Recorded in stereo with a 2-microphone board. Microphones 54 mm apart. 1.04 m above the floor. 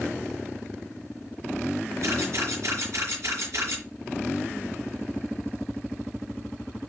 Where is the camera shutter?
55° right (ahead or behind), 7.5 m.